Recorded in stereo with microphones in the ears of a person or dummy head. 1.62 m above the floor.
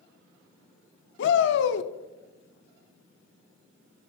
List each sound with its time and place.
1.2 s a shout: 75° left (ahead or behind), 0.7 m